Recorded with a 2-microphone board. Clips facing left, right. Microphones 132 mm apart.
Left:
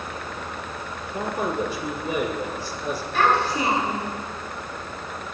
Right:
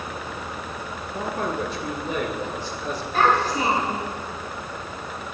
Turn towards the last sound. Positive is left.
turn(degrees=-40)  # may be behind; listen again after turning